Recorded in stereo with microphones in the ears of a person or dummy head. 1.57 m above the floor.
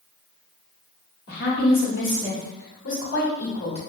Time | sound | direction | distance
1.3 | a woman speaking | 75° left (ahead or behind) | 1.9 m